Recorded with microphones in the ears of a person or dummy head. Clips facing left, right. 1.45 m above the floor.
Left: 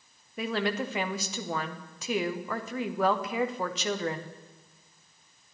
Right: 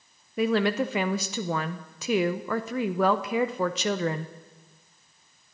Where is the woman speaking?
45° right (ahead or behind), 0.6 m.